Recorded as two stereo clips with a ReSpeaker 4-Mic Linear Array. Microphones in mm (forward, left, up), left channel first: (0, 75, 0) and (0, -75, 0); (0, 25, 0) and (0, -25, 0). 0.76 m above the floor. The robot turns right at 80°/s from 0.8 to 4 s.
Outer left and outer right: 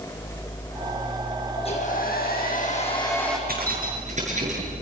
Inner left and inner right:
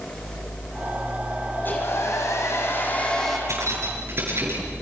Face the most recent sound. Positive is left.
turn(degrees=-50)